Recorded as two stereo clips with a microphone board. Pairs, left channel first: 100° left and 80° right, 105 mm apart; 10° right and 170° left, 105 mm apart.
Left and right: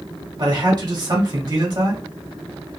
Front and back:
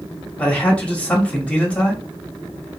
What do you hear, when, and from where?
0.4 s a man speaking: 85° right, 1.0 m